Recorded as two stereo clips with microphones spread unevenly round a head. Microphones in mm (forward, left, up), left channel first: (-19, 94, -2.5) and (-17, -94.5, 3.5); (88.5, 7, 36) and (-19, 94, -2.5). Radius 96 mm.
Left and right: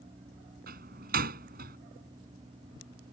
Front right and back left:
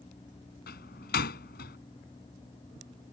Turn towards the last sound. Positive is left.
turn(degrees=-40)